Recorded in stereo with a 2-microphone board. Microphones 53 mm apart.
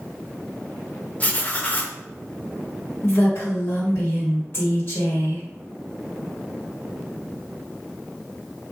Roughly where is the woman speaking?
Left.